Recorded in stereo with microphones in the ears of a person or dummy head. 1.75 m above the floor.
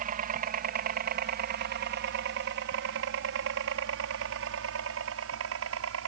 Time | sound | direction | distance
0.0 | a helicopter | 40° right (ahead or behind) | ?